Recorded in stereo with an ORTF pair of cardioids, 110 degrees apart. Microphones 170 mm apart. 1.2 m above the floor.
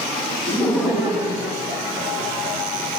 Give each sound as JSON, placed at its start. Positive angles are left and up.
{"t": 0.5, "sound": "laughter", "azimuth_deg": 15, "distance_m": 1.0}